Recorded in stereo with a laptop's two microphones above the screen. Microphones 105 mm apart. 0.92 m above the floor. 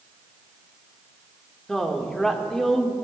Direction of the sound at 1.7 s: 5° left (ahead or behind).